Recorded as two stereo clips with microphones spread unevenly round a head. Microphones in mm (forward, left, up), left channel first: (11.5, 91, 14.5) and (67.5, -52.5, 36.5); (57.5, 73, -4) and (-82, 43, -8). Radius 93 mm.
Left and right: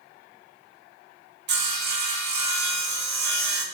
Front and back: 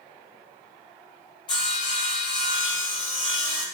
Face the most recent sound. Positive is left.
turn(degrees=-55)